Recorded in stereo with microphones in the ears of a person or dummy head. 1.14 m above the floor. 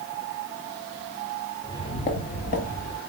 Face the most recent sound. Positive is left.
turn(degrees=50)  # may be behind; listen again after turning